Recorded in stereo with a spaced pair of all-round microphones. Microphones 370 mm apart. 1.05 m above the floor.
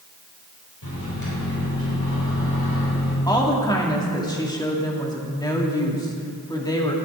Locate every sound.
0.8 s a microwave: 70° left (ahead or behind), 4.5 m
3.3 s a woman speaking: 10° left (ahead or behind), 2 m